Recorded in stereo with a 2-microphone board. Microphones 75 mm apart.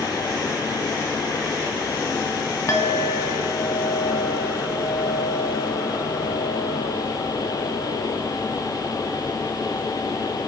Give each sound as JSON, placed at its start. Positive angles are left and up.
{"t": 2.7, "sound": "a clink", "side_deg": 40, "distance_m": 0.9}